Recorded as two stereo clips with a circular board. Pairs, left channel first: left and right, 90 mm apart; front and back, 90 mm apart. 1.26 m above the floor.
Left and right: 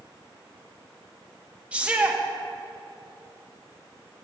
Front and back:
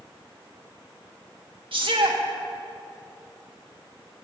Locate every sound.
1.7 s a shout: 165° right, 1.9 m